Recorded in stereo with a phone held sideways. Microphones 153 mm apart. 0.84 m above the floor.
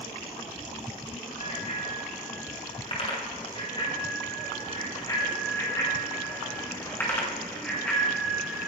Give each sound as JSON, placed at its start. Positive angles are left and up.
{"t": 1.4, "sound": "a bicycle bell", "side_deg": 45, "distance_m": 7.5}